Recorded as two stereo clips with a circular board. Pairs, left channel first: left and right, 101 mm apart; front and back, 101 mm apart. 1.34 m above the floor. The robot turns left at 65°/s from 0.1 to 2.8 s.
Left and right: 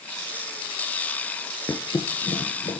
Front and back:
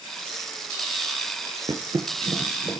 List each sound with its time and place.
1.7 s a thud: 145° left, 2.5 m; by 2.8 s 75° left, 2.5 m